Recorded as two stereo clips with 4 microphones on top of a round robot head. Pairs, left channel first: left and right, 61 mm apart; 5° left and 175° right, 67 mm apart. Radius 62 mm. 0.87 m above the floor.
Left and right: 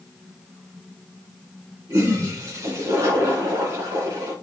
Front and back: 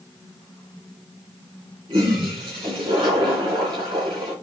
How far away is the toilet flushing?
About 3 m.